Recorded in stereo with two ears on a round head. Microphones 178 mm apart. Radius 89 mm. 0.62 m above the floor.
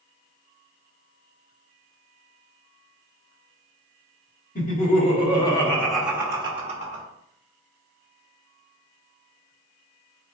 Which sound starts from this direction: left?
Laughter, at 4.5 s.